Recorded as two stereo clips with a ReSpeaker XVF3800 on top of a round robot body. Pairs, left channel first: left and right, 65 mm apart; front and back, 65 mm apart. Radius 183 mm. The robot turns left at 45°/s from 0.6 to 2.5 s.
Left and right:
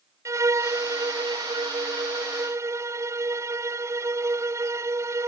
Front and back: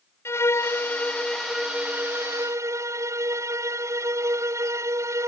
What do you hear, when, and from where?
0.2 s a violin: 50° right; by 5.3 s 135° right